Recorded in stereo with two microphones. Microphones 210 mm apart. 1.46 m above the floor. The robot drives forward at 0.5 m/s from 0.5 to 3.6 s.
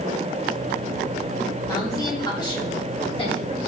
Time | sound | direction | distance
1.7 | a woman speaking | 15° left (ahead or behind) | 3 m